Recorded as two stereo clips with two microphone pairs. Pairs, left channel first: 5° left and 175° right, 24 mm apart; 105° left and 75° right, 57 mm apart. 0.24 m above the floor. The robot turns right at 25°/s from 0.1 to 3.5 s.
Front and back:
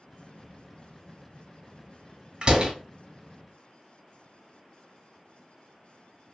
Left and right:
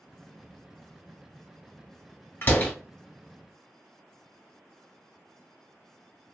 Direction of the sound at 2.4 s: 140° left.